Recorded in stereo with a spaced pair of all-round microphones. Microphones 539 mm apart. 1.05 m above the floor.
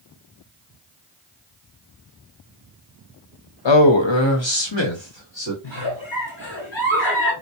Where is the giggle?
50° left (ahead or behind), 3 m.